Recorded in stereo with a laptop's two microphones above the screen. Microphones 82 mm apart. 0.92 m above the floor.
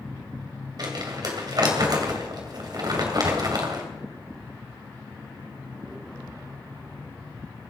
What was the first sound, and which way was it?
Crumpling, 50° right (ahead or behind).